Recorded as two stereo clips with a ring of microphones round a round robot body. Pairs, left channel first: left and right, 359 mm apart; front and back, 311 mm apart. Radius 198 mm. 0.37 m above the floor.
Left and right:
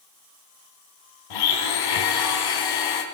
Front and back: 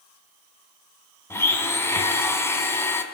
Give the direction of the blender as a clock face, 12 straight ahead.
9 o'clock.